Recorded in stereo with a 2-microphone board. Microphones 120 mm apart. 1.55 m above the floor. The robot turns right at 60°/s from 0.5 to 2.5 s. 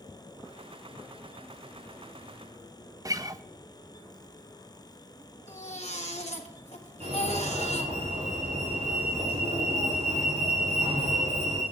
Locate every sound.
3.0 s a guitar: 30° right (ahead or behind), 0.5 m
5.5 s a baby crying: 65° left (ahead or behind), 1.6 m
7.0 s a fire alarm: 60° right (ahead or behind), 5 m